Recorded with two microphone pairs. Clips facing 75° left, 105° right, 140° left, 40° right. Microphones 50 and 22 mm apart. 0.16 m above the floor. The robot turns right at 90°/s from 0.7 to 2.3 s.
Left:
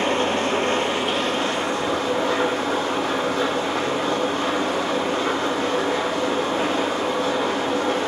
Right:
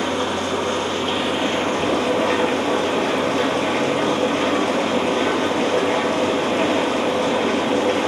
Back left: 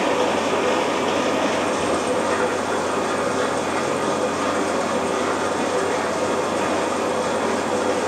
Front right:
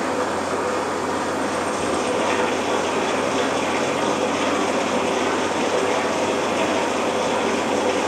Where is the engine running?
125° left, 1.8 m; by 8.1 s 95° right, 1.8 m.